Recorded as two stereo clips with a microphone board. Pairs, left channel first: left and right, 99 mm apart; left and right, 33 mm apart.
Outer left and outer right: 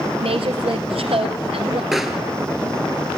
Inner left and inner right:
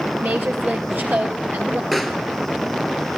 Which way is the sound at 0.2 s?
70° right (ahead or behind).